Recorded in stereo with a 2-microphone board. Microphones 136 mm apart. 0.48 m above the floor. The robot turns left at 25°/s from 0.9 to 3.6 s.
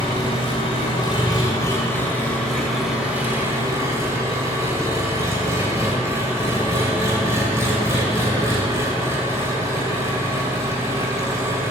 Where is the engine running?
45° left, 2 m; by 11.7 s 25° right, 2 m.